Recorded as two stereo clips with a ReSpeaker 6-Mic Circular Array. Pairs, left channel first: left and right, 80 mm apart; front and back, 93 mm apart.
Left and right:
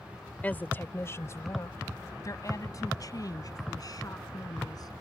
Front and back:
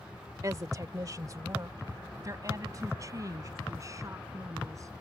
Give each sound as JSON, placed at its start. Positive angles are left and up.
{"t": 0.4, "sound": "a woman speaking", "azimuth_deg": 150}